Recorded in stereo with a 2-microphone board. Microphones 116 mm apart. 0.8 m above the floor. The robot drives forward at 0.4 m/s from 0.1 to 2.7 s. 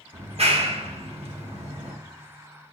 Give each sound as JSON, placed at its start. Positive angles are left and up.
{"t": 0.1, "sound": "a clap", "side_deg": -60, "distance_m": 1.1}